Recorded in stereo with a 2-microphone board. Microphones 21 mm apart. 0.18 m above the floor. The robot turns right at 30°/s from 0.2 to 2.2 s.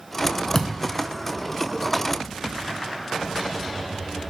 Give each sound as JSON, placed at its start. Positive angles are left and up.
{"t": 0.6, "sound": "a thud", "side_deg": 20, "distance_m": 0.6}